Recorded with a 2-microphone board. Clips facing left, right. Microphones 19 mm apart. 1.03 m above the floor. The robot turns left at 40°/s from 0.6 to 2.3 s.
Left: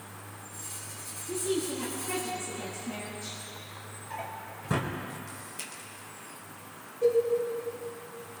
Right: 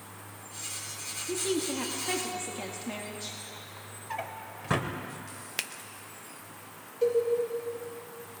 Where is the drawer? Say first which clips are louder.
Right 2 dB; 35° right (ahead or behind), 1.2 m.